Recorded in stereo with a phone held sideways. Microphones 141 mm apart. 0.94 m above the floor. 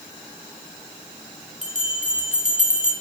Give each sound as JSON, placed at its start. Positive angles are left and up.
{"t": 1.6, "sound": "a bell", "side_deg": -65, "distance_m": 1.5}